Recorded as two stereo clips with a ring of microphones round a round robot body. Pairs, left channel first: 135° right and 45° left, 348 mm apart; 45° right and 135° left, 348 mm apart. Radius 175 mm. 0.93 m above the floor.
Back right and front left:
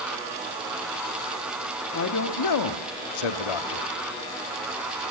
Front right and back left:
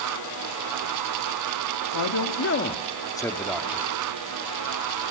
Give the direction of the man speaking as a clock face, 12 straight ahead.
3 o'clock.